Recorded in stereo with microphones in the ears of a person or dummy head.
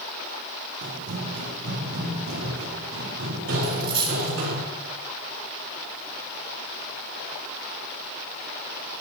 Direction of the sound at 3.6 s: 25° right (ahead or behind).